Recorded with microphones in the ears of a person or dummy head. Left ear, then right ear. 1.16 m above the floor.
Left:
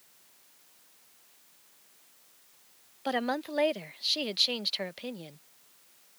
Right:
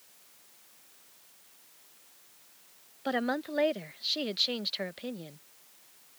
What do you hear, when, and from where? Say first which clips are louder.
3.0 s a woman speaking: left 1 dB; 10° left (ahead or behind)